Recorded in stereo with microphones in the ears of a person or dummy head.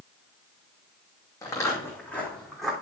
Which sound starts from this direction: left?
Footsteps, at 1.4 s.